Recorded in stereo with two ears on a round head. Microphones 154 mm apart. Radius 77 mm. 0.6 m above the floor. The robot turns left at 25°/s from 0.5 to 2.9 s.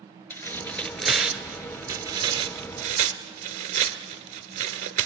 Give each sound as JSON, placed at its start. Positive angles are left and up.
{"t": 0.3, "sound": "tearing paper", "side_deg": 10, "distance_m": 1.3}